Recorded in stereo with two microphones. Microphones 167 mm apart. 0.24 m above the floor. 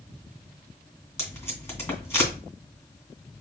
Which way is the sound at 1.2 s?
15° left (ahead or behind).